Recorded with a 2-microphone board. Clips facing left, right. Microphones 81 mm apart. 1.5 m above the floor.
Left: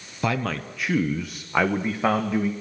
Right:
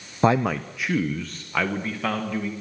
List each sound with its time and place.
0.2 s a man speaking: 30° right (ahead or behind), 0.6 m; by 2.5 s 25° left (ahead or behind), 2.0 m